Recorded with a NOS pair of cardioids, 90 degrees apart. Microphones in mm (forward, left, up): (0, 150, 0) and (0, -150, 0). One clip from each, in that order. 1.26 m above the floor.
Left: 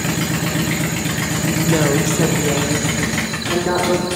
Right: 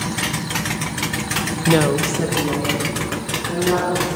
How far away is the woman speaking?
About 0.5 m.